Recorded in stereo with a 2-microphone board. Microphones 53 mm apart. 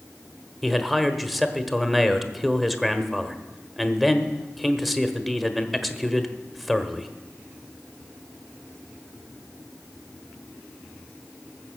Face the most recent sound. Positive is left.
turn(degrees=0)  # may be behind; listen again after turning